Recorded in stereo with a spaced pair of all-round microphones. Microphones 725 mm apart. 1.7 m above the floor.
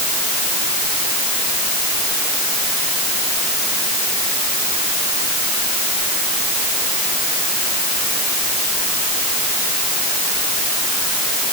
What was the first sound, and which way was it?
Only background noise.